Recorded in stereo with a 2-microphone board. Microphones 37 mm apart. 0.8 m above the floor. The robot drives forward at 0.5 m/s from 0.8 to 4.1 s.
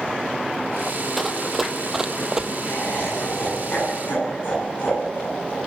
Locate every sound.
1.2 s running footsteps: centre (ahead or behind), 1.3 m; by 2.5 s 15° right (ahead or behind), 1.1 m
2.6 s laughter: 60° left (ahead or behind), 9 m; by 5.6 s 65° left (ahead or behind), 8.5 m